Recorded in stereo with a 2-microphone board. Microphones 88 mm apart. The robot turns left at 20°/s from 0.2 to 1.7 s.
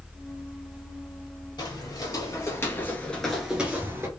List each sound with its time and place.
1.6 s footsteps: 50° left (ahead or behind), 2 m; by 4.1 s 30° right (ahead or behind), 1.3 m